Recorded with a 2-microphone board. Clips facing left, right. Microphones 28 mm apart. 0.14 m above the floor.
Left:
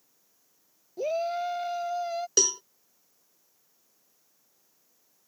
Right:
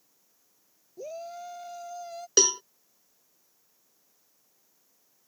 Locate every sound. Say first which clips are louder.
1.0 s a shout: left 10 dB; 55° left (ahead or behind); by 2.3 s 40° left (ahead or behind)
2.4 s a cowbell: right 3 dB; 25° right (ahead or behind)